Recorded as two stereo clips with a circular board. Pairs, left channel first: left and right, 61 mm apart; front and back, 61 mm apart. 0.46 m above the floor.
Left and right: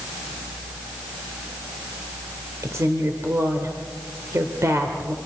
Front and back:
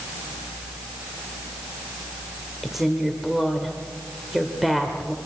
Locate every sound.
2.6 s a woman speaking: 95° right, 1.9 m